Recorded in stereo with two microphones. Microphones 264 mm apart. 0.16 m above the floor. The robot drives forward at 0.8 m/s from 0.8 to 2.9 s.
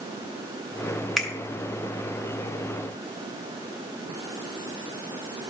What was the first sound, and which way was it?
A finger snap, centre (ahead or behind).